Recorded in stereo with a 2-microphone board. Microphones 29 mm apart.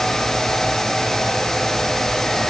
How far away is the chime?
I don't hear a chime.